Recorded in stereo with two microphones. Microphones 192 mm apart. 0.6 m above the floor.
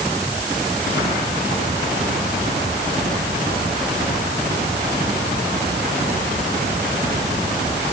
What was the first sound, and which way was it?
Only background noise.